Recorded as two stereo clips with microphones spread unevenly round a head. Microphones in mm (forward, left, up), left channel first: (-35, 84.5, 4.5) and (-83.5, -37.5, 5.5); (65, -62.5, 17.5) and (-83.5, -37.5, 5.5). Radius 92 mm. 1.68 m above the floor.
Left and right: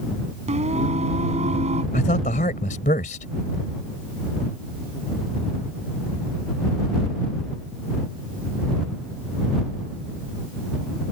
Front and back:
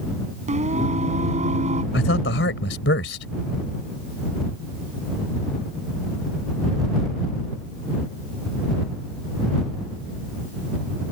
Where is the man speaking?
15° left.